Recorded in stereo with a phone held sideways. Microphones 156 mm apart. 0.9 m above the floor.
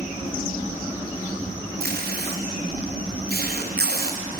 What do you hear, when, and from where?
1.8 s tape being pulled: 85° right, 0.6 m